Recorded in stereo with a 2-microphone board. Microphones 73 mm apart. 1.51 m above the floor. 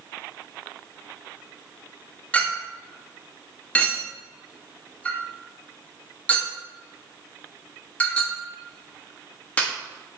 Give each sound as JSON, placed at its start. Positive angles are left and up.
{"t": 2.3, "sound": "a clink", "side_deg": 15, "distance_m": 1.0}